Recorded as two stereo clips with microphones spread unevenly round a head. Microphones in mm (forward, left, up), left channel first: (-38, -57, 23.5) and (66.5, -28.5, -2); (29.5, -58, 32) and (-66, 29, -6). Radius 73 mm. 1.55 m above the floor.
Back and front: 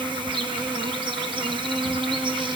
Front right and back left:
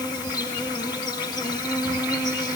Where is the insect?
25° right, 2.0 m.